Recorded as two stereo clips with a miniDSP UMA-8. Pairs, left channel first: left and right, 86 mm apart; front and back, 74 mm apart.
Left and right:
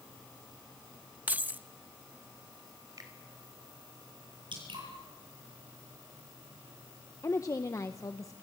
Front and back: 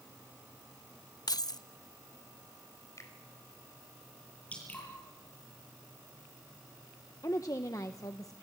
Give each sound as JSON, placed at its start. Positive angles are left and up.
{"t": 1.3, "sound": "keys jangling", "azimuth_deg": -20, "distance_m": 0.7}
{"t": 3.0, "sound": "a finger snap", "azimuth_deg": -45, "distance_m": 4.5}
{"t": 4.5, "sound": "dripping", "azimuth_deg": -70, "distance_m": 9.0}
{"t": 7.2, "sound": "a woman speaking", "azimuth_deg": 40, "distance_m": 1.0}